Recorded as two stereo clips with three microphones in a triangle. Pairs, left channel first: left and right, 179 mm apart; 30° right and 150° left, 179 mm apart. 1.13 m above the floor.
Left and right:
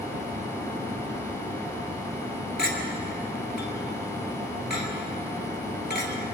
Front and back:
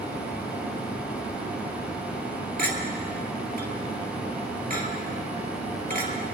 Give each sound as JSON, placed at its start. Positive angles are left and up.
{"t": 2.6, "sound": "a clink", "azimuth_deg": 115, "distance_m": 2.0}